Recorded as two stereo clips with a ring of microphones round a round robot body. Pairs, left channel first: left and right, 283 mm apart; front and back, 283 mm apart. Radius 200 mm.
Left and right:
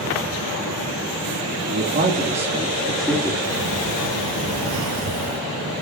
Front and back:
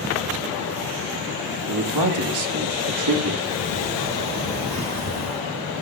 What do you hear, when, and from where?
1.7 s a man speaking: 145° right, 1.5 m; by 3.3 s 170° left, 1.5 m
3.4 s a sliding door: 135° right, 4.5 m